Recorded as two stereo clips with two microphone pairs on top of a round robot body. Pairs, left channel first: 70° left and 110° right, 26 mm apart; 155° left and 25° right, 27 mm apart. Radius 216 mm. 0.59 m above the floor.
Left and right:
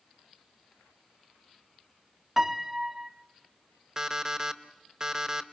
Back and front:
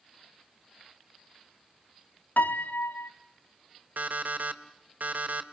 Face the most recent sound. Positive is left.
turn(degrees=-45)